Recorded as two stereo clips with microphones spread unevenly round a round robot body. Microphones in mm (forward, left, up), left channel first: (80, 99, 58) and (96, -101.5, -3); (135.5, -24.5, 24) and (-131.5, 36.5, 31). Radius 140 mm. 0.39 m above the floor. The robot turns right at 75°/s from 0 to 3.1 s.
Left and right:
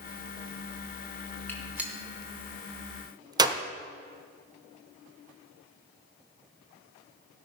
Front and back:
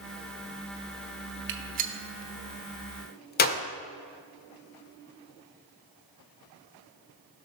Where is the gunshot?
170° right, 1.0 m; by 3.6 s 50° right, 1.0 m.